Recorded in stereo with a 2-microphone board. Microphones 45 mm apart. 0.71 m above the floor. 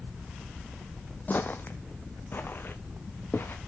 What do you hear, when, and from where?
1.3 s footsteps: 40° left (ahead or behind), 1.1 m; by 3.6 s 50° left (ahead or behind), 3 m